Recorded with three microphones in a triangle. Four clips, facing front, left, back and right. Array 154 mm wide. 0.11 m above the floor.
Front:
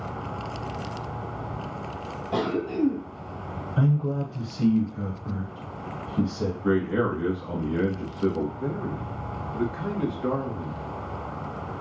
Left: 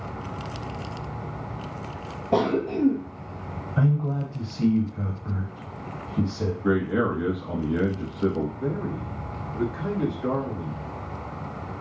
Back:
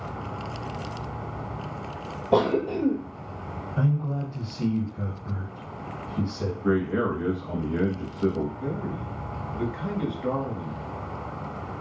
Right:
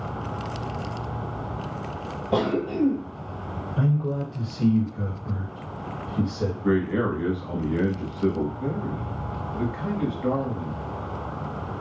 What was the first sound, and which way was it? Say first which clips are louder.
A cough: left 1 dB, back 4 dB; 170° left.